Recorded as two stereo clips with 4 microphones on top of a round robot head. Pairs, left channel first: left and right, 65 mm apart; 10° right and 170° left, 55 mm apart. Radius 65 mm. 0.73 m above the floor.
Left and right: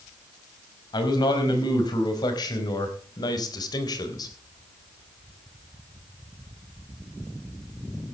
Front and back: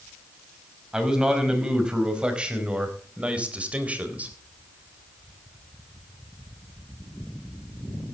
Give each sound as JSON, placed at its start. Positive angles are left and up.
{"t": 0.9, "sound": "a man speaking", "azimuth_deg": 95, "distance_m": 5.0}